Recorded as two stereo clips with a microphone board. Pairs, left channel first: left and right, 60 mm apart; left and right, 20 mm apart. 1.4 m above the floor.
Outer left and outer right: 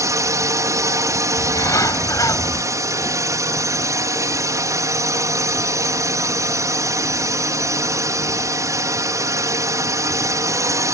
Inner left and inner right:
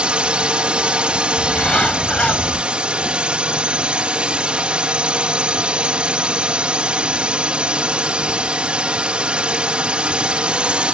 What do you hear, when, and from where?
0.0 s a drone: 65° right (ahead or behind)
1.4 s a bird: 70° left (ahead or behind)